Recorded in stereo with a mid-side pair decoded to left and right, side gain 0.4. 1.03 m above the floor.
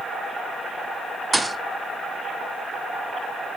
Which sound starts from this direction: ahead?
A thud, at 1.3 s.